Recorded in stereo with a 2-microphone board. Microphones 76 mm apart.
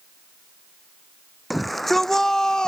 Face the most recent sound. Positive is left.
turn(degrees=10)  # may be behind; listen again after turning